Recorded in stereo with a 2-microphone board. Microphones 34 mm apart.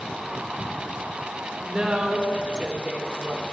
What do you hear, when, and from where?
1.6 s a woman speaking: 25° right (ahead or behind), 1.0 m